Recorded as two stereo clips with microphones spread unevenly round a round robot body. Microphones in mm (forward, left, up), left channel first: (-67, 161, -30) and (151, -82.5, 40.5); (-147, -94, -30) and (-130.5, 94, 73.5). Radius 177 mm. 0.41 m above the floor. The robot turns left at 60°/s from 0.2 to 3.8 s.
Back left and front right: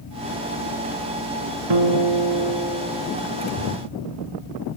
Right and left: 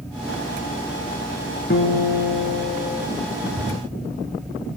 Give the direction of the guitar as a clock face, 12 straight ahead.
2 o'clock.